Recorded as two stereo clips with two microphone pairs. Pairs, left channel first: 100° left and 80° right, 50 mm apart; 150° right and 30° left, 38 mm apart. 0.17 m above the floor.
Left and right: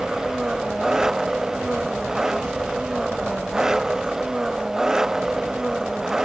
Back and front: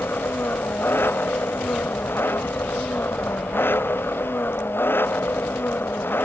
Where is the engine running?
160° right.